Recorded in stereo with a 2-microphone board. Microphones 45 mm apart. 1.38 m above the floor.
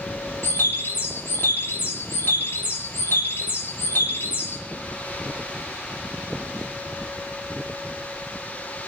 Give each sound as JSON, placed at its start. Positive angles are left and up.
{"t": 0.4, "sound": "a bird", "side_deg": 60, "distance_m": 3.0}